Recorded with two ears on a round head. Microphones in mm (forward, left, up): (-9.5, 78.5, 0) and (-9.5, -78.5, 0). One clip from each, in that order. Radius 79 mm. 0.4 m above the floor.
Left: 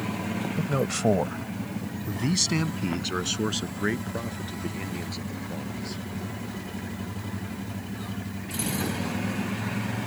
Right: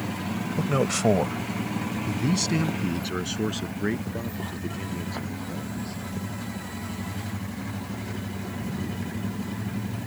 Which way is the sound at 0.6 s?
25° right (ahead or behind).